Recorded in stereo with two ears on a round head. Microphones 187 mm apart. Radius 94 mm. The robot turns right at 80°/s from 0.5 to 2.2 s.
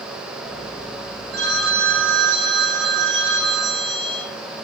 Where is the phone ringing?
130° right, 1.4 m; by 4.3 s 60° right, 1.4 m.